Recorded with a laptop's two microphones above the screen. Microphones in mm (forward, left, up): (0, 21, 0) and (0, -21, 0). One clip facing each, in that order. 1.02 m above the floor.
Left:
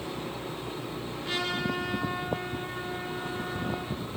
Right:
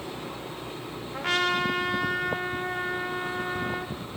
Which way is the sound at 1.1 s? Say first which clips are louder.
Right 7 dB; 75° right (ahead or behind).